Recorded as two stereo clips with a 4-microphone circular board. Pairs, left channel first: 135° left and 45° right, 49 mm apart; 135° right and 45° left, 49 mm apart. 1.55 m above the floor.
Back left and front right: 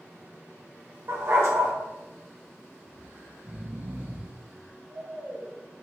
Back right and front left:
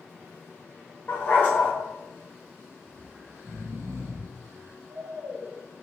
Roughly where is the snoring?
Ahead.